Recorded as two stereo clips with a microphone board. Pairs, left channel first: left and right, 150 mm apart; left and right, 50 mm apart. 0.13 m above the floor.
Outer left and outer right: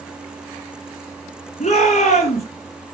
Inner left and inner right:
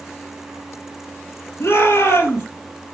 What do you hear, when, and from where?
1.6 s a shout: 45° left (ahead or behind), 2.5 m